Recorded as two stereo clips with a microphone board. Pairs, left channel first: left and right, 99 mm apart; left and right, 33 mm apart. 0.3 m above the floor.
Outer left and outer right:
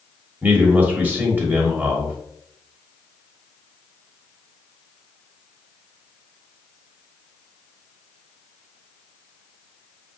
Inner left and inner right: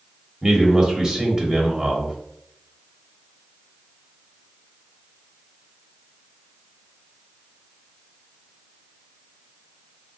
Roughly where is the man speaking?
Right.